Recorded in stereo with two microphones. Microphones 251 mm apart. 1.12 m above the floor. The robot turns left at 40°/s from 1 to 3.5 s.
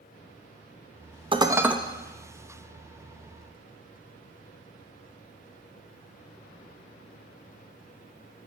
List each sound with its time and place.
1.3 s dishes clattering: 20° right (ahead or behind), 0.6 m; by 1.8 s 5° right (ahead or behind), 0.6 m